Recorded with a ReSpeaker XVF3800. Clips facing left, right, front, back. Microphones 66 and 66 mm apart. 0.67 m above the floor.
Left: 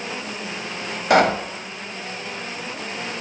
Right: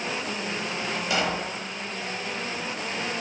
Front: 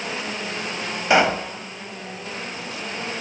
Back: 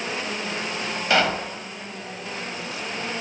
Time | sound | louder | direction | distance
1.1 | a pop | left 12 dB, front 4 dB | 70° left | 0.8 m